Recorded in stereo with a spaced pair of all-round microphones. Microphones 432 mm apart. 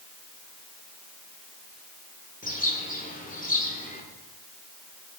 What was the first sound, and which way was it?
A bird, 20° left (ahead or behind).